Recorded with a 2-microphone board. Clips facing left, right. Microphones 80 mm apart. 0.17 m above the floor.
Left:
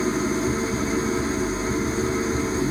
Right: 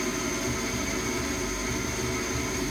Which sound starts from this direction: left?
An engine running, at 0.0 s.